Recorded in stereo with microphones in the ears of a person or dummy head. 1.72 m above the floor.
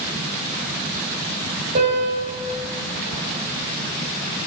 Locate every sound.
1.8 s a piano: 25° right (ahead or behind), 1.6 m